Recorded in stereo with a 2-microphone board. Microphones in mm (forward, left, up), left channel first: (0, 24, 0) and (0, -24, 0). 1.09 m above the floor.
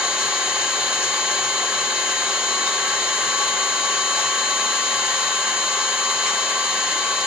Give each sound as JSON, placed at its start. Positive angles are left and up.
{"t": 0.0, "sound": "an engine running", "side_deg": -20, "distance_m": 1.3}